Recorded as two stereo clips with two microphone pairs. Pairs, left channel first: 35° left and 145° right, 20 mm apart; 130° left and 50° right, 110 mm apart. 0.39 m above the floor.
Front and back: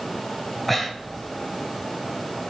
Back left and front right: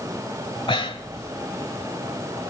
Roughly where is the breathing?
Behind left.